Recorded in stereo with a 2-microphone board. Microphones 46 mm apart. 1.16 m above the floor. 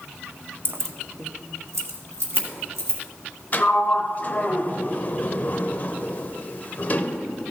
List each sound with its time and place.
0.7 s keys jangling: 50° right (ahead or behind), 0.5 m; by 3.0 s 70° right (ahead or behind), 2.5 m
3.5 s a sliding door: 35° left (ahead or behind), 0.6 m